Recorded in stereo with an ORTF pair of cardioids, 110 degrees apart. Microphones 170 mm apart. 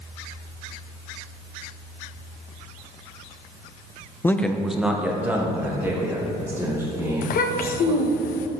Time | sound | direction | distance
4.2 | a man speaking | 15° left | 0.6 m
7.2 | a child speaking | 60° left | 1.0 m